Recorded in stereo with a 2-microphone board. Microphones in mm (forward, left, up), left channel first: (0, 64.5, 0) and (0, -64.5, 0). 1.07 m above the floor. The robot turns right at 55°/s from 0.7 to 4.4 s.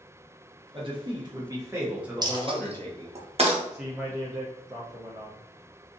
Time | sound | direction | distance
0.7 | a man speaking | 85° right | 0.9 m
2.2 | a dropped coin | 30° right (ahead or behind) | 0.5 m
3.7 | a man speaking | 175° right | 0.5 m